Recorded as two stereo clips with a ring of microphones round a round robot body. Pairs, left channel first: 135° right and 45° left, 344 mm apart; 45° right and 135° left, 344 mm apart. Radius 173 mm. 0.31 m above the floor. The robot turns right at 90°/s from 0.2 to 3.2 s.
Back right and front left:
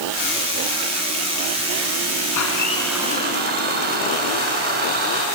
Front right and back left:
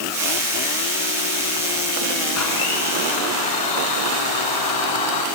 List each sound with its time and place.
2.4 s a blender: 95° right, 3 m; by 5.3 s 20° right, 3 m